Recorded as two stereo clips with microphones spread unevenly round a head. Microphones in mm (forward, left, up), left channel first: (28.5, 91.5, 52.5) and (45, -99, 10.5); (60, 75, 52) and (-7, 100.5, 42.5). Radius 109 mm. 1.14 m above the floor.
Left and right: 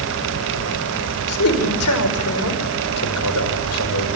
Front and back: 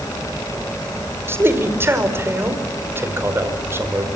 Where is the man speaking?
105° left, 5 m.